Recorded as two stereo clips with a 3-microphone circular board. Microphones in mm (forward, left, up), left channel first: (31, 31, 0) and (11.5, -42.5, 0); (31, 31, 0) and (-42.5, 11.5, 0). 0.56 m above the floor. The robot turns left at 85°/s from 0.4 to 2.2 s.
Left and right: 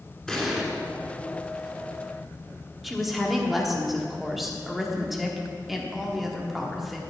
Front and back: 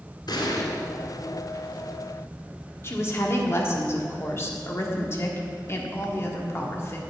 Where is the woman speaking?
15° right, 1.3 m.